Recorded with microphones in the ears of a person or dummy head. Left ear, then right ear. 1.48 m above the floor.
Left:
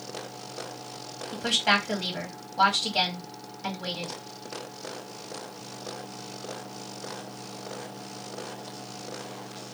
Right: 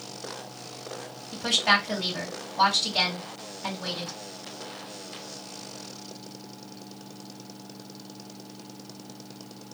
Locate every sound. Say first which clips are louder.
1.3 s a woman speaking: right 1 dB; 5° left (ahead or behind), 1.6 m